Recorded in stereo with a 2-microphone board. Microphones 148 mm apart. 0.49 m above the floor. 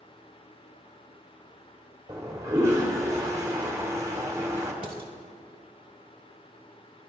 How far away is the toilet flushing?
About 1.0 m.